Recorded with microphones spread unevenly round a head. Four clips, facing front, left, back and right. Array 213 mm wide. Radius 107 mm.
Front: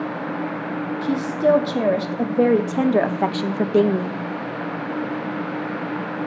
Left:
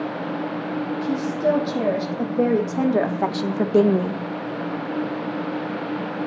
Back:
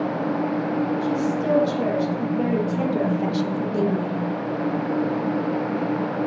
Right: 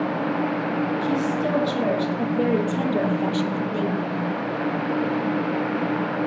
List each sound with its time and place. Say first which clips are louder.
1.0 s a woman speaking: left 1 dB, front 3 dB; 10° left, 3 m; by 4.2 s 85° left, 0.6 m